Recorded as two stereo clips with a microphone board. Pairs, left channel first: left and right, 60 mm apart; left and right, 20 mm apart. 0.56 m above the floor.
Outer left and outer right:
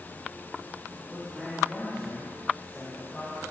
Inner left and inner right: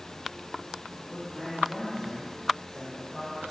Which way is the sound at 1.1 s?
10° right (ahead or behind).